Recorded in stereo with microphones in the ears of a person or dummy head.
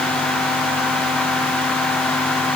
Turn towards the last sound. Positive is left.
No sound to turn to.